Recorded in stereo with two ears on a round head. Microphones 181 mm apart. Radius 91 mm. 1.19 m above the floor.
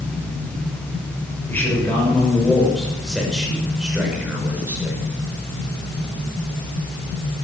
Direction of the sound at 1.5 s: 10° left (ahead or behind).